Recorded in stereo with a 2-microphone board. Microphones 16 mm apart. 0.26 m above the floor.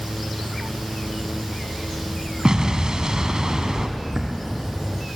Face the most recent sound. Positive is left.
turn(degrees=-35)  # may be behind; listen again after turning